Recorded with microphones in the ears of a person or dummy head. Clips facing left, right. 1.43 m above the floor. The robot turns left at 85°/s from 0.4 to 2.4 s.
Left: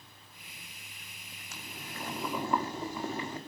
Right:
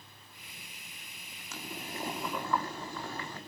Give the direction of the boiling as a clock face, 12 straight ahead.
4 o'clock.